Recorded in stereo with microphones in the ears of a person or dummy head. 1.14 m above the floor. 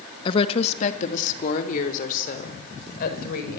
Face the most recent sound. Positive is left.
turn(degrees=50)  # may be behind; listen again after turning